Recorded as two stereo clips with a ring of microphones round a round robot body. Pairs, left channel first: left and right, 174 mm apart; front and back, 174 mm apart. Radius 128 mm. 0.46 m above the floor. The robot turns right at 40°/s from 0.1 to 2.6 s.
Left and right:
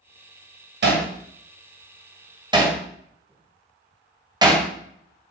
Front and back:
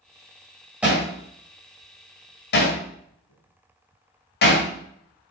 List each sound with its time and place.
0.8 s hammering: 95° right, 1.9 m; by 4.7 s 25° right, 1.9 m